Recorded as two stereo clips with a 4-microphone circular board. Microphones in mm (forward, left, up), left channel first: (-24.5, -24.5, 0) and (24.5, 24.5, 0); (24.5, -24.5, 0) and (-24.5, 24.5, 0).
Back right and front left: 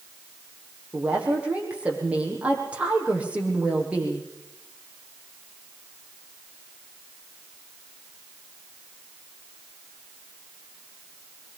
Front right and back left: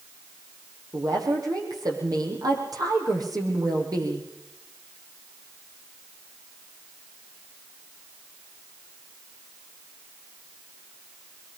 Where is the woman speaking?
115° left, 6.5 m.